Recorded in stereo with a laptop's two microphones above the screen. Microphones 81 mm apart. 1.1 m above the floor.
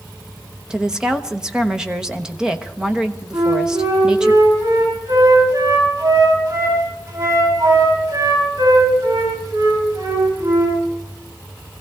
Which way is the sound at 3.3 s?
70° right (ahead or behind).